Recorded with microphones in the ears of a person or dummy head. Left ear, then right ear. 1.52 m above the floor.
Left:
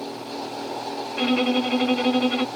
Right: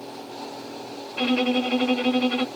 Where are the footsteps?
No footsteps in this recording.